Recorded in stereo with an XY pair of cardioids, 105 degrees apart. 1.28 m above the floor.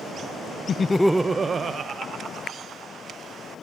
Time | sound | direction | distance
0.7 | laughter | 50° left | 0.5 m